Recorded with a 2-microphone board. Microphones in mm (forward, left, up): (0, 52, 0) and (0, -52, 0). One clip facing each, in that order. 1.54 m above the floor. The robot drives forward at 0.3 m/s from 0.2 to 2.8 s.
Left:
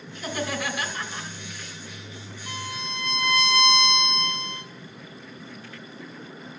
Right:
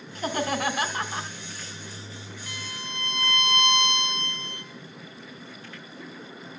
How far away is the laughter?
About 1.4 m.